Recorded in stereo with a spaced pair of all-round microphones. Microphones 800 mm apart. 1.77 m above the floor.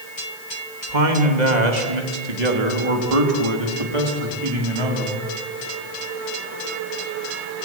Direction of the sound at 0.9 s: 65° right (ahead or behind).